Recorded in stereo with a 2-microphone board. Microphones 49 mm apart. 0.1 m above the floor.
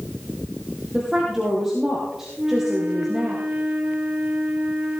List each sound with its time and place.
0.9 s a woman speaking: 10° right (ahead or behind), 3 m
2.4 s a flute: 25° right (ahead or behind), 1.4 m